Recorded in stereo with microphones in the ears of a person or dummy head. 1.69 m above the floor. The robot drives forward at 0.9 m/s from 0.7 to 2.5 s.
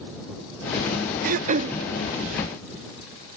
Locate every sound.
1.2 s throat clearing: 50° right (ahead or behind), 0.8 m; by 1.8 s 30° right (ahead or behind), 1.1 m